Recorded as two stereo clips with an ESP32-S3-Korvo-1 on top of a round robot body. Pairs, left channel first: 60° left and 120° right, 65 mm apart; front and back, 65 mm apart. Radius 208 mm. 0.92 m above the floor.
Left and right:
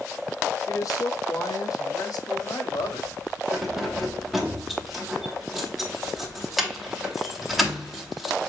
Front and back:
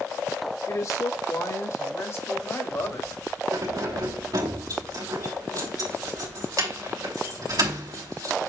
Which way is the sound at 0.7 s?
35° left.